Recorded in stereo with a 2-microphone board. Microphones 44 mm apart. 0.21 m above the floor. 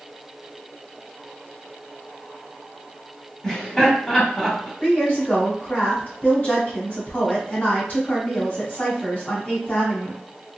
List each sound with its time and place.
3.4 s laughter: 10° left (ahead or behind), 1.0 m
4.8 s a woman speaking: 30° left (ahead or behind), 1.4 m